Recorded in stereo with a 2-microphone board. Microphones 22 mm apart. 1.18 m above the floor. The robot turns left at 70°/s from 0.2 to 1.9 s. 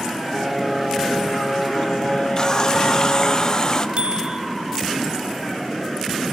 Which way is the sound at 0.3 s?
Straight behind.